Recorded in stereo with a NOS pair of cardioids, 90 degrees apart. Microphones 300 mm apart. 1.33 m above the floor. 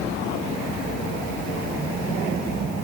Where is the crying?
No crying in this recording.